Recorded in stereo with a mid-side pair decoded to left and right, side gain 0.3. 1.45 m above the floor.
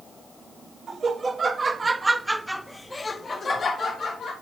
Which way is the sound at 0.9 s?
55° right.